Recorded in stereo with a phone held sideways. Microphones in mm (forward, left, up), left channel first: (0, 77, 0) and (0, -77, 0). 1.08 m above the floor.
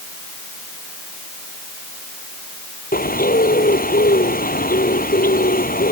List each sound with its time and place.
2.9 s a bird: 70° left (ahead or behind)